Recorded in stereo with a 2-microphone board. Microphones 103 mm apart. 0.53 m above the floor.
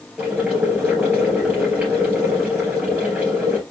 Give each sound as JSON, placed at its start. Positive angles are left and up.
{"t": 0.2, "sound": "boiling", "side_deg": -15, "distance_m": 3.5}